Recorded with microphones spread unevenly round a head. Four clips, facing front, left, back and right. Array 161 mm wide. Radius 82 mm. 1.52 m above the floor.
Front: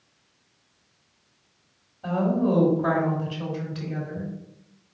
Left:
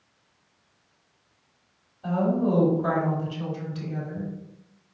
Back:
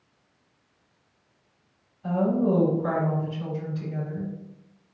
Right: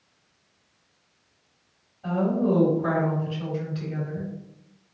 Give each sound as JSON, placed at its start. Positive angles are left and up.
{"t": 2.0, "sound": "a woman speaking", "azimuth_deg": 10, "distance_m": 3.0}